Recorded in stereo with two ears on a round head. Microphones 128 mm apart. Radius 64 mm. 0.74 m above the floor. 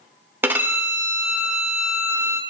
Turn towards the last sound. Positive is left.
turn(degrees=-15)  # may be behind; listen again after turning